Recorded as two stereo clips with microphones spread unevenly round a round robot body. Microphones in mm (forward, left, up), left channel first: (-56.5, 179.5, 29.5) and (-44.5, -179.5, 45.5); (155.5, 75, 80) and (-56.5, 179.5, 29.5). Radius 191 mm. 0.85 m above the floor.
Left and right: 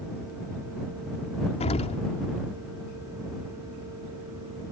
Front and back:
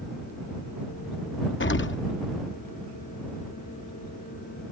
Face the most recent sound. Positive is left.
turn(degrees=20)